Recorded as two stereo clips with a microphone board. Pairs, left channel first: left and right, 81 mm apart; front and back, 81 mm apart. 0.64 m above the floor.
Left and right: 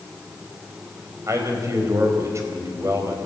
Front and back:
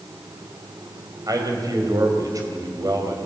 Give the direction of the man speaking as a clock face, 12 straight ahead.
5 o'clock.